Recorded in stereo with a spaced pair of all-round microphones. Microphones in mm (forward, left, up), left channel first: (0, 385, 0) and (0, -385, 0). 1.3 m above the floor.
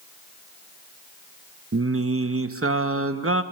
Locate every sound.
1.7 s singing: 20° right (ahead or behind), 0.6 m